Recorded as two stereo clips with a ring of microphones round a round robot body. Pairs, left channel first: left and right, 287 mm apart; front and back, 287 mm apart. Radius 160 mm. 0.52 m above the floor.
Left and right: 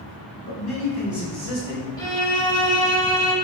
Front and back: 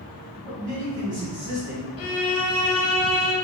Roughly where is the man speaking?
Behind.